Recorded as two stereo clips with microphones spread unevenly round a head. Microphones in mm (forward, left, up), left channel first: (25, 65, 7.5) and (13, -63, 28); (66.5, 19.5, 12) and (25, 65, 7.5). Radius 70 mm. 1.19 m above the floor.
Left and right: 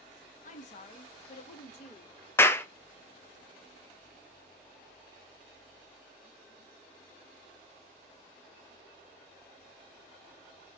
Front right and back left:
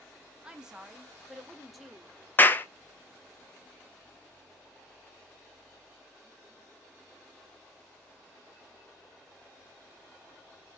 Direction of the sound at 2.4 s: 10° left.